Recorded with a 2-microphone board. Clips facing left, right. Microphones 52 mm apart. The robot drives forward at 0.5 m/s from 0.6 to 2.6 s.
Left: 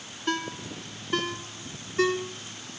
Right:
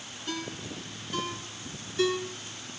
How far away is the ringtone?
About 1.0 m.